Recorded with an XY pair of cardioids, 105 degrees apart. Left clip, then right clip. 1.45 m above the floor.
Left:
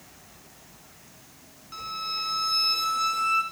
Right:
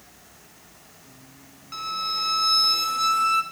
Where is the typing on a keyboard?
No typing on a keyboard in this recording.